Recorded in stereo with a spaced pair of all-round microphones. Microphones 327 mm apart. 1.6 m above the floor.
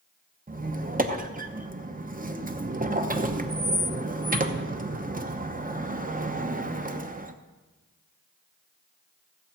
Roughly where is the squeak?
Right.